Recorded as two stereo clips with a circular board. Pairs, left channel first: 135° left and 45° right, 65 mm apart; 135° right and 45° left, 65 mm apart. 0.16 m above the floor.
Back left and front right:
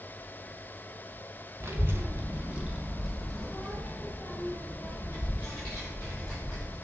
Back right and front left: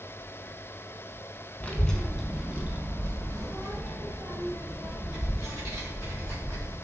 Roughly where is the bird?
I don't hear a bird.